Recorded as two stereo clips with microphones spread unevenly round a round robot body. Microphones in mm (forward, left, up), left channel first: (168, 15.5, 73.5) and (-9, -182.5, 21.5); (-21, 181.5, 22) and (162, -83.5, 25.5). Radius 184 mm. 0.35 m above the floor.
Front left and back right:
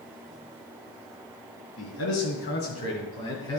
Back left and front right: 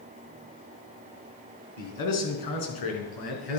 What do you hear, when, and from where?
1.8 s a man speaking: 100° left, 4 m; by 3.6 s 130° left, 4.5 m